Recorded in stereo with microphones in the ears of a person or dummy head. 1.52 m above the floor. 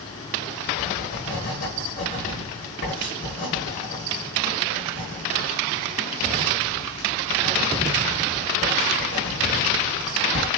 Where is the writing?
45° left (ahead or behind), 5.5 m.